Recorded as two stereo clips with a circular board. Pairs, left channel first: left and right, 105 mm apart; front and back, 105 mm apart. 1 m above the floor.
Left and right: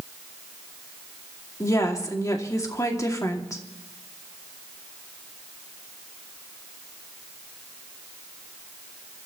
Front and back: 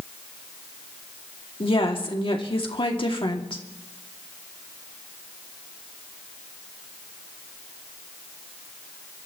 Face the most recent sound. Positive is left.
turn(degrees=30)